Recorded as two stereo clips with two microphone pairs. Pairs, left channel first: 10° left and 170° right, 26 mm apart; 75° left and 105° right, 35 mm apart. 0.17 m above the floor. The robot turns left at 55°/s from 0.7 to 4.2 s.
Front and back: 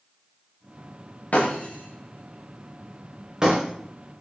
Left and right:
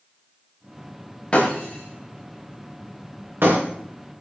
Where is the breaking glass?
15° left, 8 m; by 3.6 s 110° right, 8 m.